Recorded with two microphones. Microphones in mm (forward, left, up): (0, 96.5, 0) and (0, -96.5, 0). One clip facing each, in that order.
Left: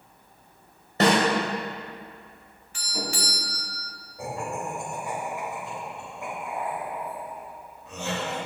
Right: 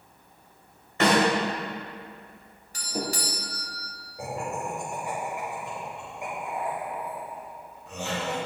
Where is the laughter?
15° right (ahead or behind), 2.5 m.